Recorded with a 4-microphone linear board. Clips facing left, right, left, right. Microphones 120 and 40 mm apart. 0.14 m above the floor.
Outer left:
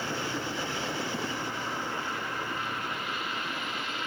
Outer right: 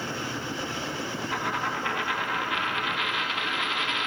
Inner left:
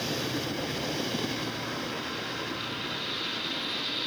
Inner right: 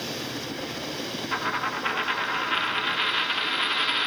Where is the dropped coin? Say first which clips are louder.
Outer right 4 dB, inner right 6 dB; 80° right, 2 m.